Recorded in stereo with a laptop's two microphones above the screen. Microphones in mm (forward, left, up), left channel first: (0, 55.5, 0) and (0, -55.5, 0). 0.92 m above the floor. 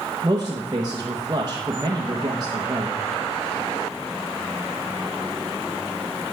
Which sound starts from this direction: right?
A man speaking, at 0.2 s.